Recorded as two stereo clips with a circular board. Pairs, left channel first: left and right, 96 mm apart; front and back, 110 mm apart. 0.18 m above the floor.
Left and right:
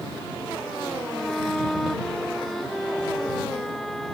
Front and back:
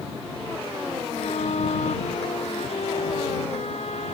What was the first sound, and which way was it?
A violin, 5° left.